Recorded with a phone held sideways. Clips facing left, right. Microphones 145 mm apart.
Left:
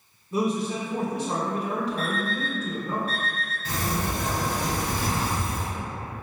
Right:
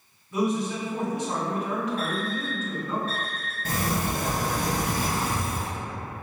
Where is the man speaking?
35° left (ahead or behind), 0.8 m.